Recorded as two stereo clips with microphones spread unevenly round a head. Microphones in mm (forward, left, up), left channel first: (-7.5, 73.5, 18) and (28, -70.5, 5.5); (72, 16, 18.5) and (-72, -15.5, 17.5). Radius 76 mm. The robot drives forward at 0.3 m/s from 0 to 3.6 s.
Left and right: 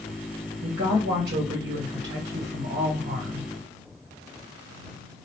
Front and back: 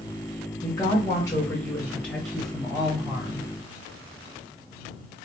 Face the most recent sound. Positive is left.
turn(degrees=-100)